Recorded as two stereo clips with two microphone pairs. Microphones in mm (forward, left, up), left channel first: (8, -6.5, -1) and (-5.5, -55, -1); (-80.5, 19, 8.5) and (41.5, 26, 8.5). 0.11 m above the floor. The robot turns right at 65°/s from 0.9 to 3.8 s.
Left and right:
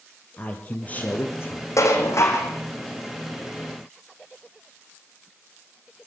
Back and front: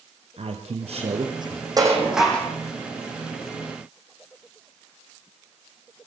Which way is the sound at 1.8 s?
65° left.